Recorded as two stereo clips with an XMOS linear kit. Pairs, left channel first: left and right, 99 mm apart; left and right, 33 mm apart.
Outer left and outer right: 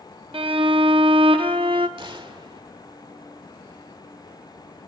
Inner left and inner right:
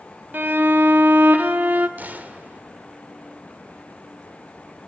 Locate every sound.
0.3 s a violin: 60° right (ahead or behind), 0.8 m
2.0 s a gunshot: 60° right (ahead or behind), 1.3 m